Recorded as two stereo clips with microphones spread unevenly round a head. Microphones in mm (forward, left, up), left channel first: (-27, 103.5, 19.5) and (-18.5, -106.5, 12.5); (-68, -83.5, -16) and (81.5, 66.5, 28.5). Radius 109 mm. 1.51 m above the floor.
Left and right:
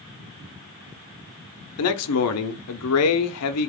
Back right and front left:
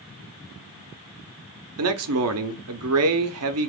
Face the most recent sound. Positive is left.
turn(degrees=65)